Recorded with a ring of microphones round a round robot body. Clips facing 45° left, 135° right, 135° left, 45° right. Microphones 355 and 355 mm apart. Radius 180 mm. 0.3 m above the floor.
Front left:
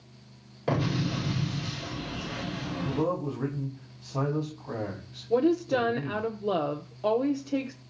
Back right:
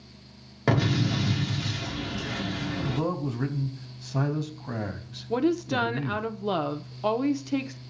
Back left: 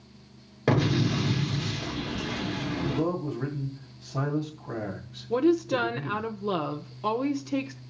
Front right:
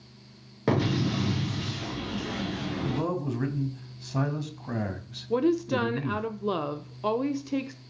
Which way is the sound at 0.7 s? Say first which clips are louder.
Back right 3 dB, back left 1 dB; 140° right.